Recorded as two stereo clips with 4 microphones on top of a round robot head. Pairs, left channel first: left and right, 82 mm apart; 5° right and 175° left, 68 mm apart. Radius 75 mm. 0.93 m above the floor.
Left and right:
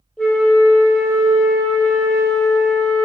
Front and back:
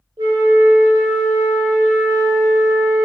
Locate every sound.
0.2 s a flute: 170° left, 0.9 m